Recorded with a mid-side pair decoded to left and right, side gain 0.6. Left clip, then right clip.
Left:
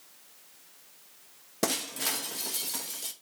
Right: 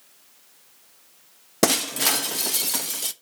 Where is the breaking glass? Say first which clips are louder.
Right 9 dB; 45° right, 0.7 m.